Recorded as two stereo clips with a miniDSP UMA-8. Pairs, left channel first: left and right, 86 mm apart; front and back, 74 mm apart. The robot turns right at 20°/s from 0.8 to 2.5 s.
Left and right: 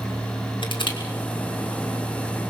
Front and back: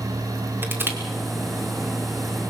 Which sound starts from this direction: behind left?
Crushing, at 0.6 s.